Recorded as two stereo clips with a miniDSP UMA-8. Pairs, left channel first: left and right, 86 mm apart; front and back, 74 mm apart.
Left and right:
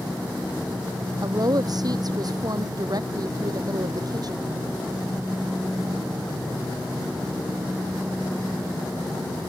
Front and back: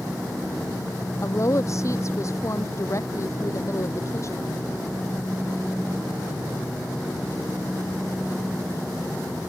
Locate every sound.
1.2 s a woman speaking: 50° right